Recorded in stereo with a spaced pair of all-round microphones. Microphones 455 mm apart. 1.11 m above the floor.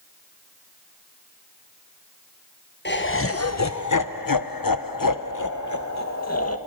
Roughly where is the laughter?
Left.